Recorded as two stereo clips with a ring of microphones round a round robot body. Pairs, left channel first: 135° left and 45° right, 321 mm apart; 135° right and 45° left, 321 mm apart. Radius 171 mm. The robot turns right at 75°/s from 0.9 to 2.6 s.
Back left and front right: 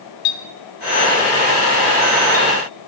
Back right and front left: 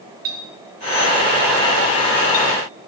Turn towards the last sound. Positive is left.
turn(degrees=-125)